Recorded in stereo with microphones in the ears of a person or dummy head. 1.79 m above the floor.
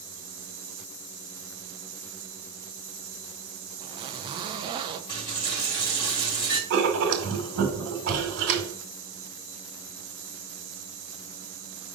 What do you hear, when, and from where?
3.8 s a zipper: 25° right (ahead or behind), 0.7 m
5.1 s a dropped coin: 20° left (ahead or behind), 1.7 m
6.7 s writing: 55° right (ahead or behind), 2.0 m